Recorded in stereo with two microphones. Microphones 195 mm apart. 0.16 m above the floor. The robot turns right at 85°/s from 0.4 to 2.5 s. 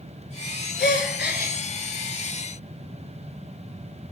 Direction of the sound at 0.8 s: 70° left.